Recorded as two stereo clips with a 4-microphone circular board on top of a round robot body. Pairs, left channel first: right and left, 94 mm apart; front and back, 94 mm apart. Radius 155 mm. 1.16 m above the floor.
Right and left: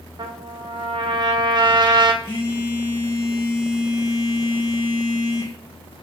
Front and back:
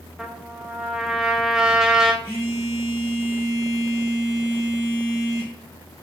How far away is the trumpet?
About 0.8 m.